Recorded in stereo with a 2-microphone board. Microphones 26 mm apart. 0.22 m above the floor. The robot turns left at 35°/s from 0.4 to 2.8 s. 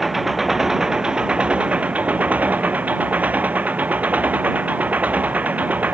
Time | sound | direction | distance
0.0 | an engine running | 5° right | ?